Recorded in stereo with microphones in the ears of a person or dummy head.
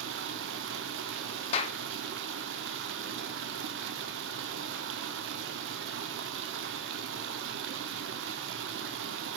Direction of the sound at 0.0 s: 65° right (ahead or behind).